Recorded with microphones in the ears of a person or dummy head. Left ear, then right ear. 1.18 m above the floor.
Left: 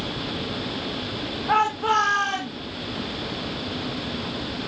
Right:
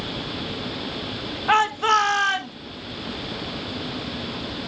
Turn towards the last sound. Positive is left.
turn(degrees=-50)  # may be behind; listen again after turning